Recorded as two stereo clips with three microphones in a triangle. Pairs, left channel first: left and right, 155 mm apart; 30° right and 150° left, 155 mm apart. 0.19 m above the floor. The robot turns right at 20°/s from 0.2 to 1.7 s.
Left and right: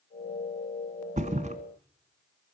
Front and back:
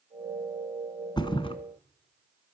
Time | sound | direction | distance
1.2 | a thud | 85° right | 0.9 m